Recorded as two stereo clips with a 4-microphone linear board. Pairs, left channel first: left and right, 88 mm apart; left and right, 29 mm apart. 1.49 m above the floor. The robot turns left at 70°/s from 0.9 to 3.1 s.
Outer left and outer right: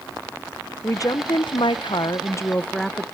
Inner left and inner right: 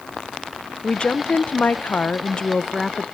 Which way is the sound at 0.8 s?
140° left.